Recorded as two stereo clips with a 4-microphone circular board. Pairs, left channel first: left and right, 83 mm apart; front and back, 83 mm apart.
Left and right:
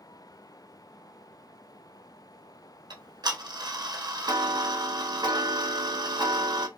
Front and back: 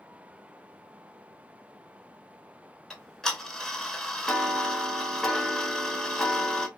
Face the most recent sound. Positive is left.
turn(degrees=-85)